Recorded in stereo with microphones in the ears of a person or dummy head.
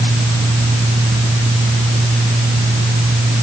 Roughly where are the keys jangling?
I don't hear keys jangling.